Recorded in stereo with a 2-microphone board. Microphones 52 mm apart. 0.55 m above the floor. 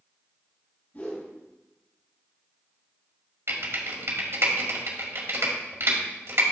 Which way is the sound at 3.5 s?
60° right (ahead or behind).